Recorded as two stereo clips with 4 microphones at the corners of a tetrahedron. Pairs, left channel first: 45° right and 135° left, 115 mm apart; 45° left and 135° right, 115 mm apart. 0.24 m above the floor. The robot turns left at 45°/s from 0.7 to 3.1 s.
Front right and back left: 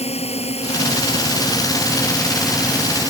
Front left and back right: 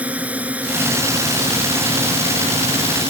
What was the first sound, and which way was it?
A drone, 60° right.